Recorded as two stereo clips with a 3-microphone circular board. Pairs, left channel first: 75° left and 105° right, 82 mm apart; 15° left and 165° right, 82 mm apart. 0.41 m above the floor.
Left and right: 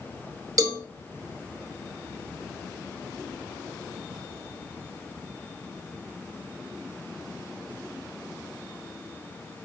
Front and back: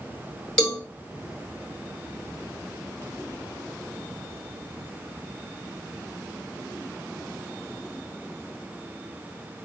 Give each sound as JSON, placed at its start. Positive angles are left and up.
{"t": 0.6, "sound": "a cowbell", "azimuth_deg": -65, "distance_m": 0.6}